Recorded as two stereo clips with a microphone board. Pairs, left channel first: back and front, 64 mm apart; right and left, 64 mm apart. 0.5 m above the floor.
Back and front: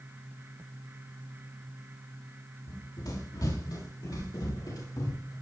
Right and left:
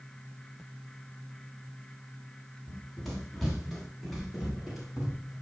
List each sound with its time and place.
2.7 s running footsteps: 175° right, 8.5 m; by 5.3 s 175° left, 9.5 m